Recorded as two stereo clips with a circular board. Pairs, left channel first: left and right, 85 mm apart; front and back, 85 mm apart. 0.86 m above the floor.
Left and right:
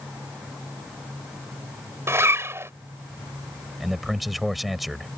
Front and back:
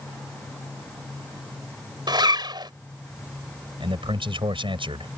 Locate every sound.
2.1 s a zipper: 150° right
3.8 s a man speaking: straight behind